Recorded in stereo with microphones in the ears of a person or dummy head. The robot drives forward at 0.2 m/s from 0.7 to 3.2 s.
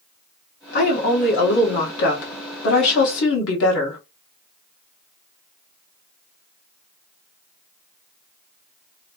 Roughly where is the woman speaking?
Left.